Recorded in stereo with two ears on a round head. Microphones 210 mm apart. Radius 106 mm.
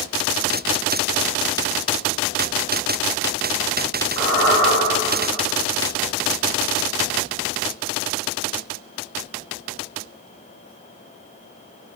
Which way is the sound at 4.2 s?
20° left (ahead or behind).